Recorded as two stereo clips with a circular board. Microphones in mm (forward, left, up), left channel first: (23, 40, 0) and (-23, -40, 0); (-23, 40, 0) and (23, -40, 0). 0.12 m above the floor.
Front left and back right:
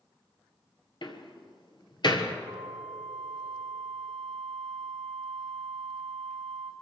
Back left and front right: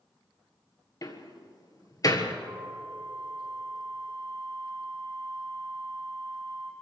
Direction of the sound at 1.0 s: 75° left.